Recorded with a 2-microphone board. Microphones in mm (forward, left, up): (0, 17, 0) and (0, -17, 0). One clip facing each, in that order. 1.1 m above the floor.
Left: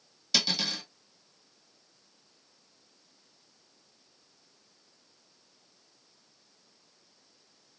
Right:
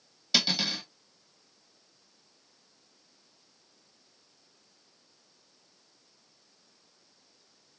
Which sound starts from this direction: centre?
Cutlery clinking, at 0.3 s.